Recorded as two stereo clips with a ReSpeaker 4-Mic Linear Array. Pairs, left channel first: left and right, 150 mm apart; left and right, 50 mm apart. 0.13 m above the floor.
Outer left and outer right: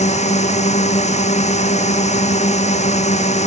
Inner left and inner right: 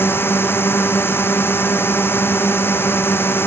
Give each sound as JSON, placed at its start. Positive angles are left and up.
{"t": 0.0, "sound": "a drone", "side_deg": 45}